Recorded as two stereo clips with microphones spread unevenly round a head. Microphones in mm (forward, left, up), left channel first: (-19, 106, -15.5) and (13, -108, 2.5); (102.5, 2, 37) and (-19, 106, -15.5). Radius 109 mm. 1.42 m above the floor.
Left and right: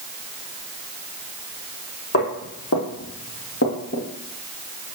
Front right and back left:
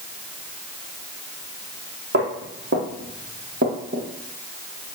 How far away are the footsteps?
About 2.5 m.